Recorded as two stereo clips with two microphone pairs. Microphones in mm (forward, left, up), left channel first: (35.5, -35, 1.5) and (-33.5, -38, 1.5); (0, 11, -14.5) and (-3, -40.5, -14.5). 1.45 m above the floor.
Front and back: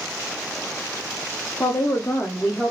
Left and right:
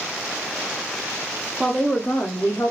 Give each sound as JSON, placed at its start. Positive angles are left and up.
{"t": 1.6, "sound": "a woman speaking", "azimuth_deg": -5, "distance_m": 0.6}